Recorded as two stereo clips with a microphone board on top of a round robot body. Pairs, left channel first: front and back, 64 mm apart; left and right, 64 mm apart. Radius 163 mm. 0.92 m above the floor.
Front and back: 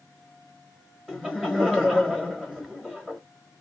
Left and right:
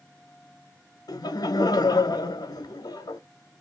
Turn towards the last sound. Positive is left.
turn(degrees=95)